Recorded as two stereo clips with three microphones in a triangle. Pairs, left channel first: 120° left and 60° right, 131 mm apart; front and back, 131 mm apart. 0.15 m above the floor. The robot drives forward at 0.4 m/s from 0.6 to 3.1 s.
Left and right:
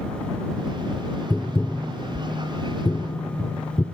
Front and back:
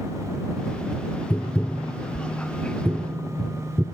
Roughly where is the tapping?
Ahead left.